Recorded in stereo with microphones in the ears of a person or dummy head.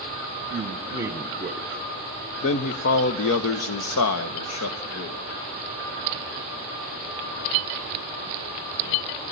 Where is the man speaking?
25° right (ahead or behind), 1.2 m; by 5.2 s 85° left, 1.8 m.